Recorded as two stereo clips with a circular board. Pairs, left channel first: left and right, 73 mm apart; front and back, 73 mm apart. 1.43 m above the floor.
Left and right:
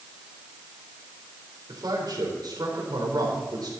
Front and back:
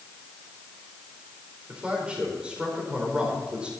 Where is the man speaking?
105° right, 4.5 m.